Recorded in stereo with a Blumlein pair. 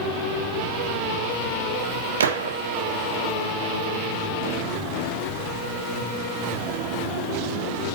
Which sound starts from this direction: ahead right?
A gunshot, at 2.2 s.